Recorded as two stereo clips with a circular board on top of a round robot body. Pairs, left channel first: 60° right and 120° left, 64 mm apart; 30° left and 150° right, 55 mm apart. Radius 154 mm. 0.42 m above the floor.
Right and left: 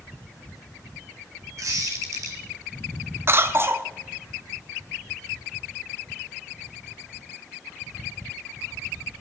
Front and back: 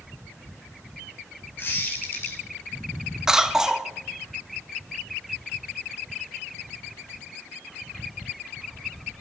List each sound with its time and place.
1.6 s a squeak: 80° left, 1.8 m
3.3 s a cough: 135° left, 1.2 m